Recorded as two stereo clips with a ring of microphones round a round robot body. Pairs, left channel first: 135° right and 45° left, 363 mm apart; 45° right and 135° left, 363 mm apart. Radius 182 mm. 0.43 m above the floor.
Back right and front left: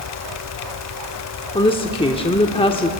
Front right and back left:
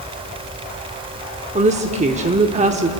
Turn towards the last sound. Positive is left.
turn(degrees=170)